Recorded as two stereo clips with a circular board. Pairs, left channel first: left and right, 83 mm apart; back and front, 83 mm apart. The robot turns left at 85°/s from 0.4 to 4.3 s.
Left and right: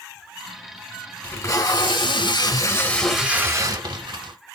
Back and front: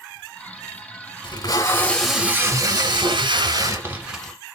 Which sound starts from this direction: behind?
Tape being pulled, at 1.2 s.